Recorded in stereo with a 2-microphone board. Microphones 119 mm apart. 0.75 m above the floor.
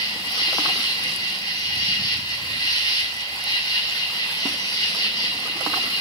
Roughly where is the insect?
Left.